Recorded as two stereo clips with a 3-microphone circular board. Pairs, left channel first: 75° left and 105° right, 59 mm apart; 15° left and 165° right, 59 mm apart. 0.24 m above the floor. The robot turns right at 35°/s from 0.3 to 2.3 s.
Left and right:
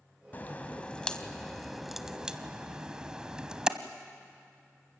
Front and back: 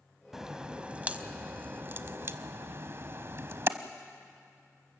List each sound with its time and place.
0.3 s a crack: 115° left, 0.8 m; by 3.7 s straight behind, 0.8 m